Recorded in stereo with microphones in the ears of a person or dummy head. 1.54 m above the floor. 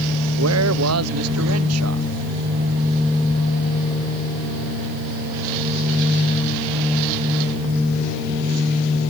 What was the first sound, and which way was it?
A man speaking, 85° right.